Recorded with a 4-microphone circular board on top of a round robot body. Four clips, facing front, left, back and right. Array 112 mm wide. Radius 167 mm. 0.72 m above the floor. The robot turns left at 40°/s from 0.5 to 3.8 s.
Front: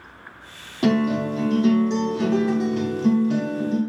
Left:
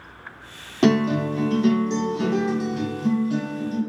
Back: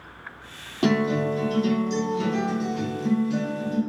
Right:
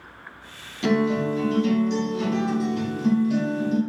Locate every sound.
0.8 s a guitar: 90° left, 1.1 m; by 3.8 s 30° right, 1.1 m